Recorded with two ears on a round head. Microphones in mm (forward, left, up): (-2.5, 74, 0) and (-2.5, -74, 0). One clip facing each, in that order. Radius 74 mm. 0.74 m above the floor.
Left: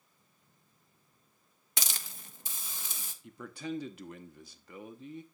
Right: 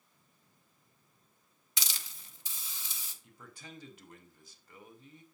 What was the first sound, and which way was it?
A hiss, 40° left (ahead or behind).